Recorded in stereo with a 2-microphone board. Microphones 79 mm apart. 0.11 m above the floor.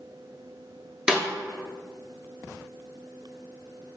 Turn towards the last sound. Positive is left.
turn(degrees=-10)  # may be behind; listen again after turning